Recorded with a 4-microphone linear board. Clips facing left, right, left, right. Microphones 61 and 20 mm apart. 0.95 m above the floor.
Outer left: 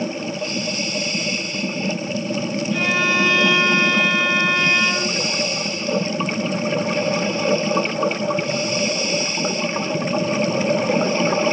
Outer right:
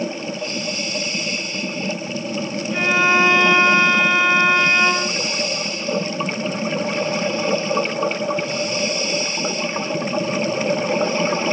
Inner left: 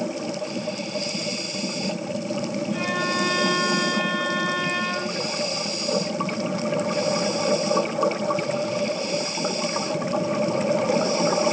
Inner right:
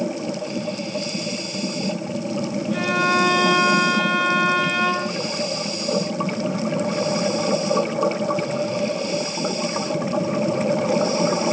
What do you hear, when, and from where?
2.7 s a violin: 25° right (ahead or behind), 0.7 m